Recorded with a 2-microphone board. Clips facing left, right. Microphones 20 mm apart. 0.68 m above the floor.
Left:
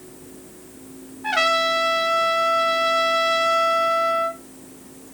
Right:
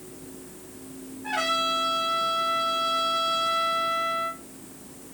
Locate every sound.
1.2 s a trumpet: 60° left (ahead or behind), 0.7 m